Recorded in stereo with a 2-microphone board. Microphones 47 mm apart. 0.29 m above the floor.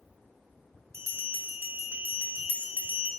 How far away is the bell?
About 0.6 m.